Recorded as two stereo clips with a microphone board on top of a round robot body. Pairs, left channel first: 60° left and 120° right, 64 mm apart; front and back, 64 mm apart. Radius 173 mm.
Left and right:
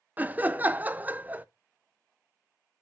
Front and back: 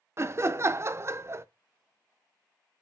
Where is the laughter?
170° right, 0.5 m.